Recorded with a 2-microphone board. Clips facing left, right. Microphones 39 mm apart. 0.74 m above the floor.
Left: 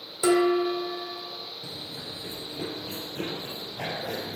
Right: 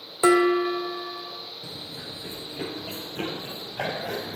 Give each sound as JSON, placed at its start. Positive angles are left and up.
{"t": 0.2, "sound": "dishes clattering", "side_deg": -30, "distance_m": 1.3}
{"t": 1.6, "sound": "running footsteps", "side_deg": -20, "distance_m": 0.7}